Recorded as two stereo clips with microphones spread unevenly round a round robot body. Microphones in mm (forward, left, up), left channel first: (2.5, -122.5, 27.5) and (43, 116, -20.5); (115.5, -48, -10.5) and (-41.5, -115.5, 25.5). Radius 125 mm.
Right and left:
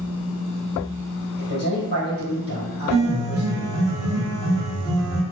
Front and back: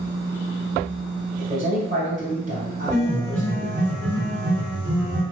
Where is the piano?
115° left, 0.8 m.